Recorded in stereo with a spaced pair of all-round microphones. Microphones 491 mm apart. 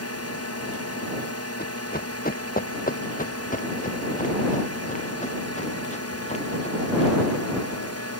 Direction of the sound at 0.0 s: 30° left (ahead or behind).